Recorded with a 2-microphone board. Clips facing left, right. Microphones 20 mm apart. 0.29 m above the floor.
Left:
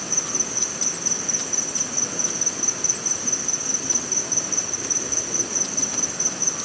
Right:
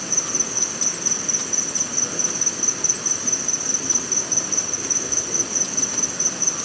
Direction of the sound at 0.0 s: 15° right (ahead or behind).